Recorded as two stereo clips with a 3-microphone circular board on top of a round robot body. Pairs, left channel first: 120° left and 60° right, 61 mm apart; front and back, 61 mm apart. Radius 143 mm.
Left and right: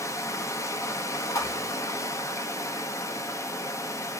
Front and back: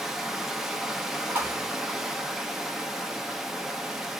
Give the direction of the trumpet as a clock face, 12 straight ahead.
I don't hear a trumpet.